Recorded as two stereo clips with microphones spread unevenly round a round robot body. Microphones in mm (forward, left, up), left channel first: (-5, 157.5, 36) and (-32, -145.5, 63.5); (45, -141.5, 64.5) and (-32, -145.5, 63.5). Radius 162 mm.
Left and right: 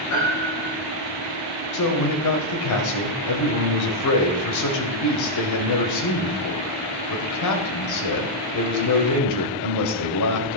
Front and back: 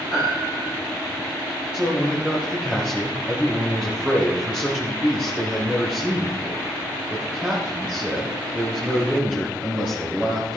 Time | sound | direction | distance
0.1 | a piano | 115° left | 6.5 m
1.7 | a man speaking | 100° left | 2 m